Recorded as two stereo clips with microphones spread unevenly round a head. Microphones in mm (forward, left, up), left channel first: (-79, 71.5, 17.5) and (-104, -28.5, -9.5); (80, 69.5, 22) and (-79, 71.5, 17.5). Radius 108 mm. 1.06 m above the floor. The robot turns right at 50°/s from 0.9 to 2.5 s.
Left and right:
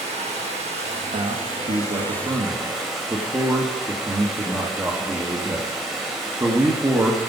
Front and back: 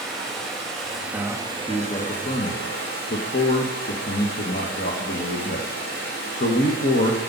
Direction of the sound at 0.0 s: 105° right.